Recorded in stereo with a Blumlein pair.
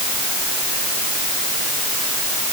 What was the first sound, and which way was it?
Only background noise.